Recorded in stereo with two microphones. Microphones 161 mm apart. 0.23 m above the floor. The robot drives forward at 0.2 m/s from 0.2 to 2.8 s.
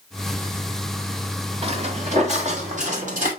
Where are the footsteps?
35° right (ahead or behind), 1.5 m; by 3.3 s 55° right (ahead or behind), 3 m.